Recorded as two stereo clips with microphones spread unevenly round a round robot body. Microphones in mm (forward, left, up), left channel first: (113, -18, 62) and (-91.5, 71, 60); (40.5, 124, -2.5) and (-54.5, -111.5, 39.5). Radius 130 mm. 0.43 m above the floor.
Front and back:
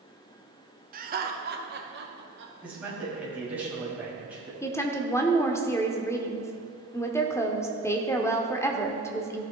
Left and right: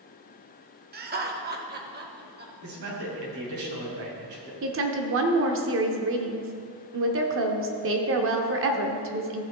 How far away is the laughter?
About 1.1 m.